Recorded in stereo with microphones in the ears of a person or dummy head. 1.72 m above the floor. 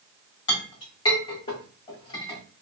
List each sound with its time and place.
0.5 s a clink: 25° left (ahead or behind), 1.3 m